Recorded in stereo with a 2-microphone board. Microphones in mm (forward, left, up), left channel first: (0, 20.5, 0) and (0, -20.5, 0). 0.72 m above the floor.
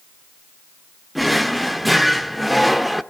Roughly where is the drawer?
Centre.